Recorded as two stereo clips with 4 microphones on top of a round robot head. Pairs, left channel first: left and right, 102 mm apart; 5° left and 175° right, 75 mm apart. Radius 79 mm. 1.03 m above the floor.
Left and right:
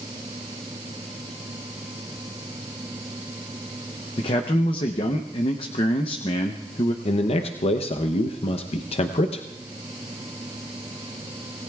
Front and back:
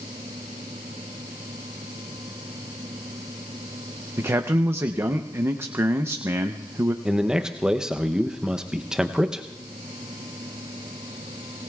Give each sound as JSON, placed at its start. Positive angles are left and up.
{"t": 4.2, "sound": "a man speaking", "azimuth_deg": 130, "distance_m": 0.7}
{"t": 7.0, "sound": "a man speaking", "azimuth_deg": 105, "distance_m": 0.7}